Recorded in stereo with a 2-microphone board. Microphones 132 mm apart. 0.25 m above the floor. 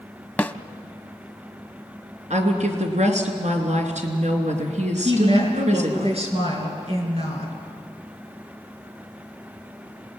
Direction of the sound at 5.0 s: 55° right (ahead or behind).